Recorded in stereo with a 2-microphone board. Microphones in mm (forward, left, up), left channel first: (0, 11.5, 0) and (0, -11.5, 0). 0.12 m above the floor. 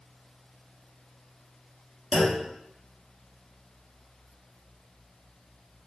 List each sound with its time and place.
2.1 s a clunk: centre (ahead or behind), 0.9 m